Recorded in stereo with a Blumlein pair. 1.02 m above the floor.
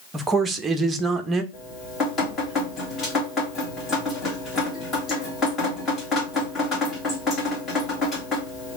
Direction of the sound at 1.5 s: 20° left.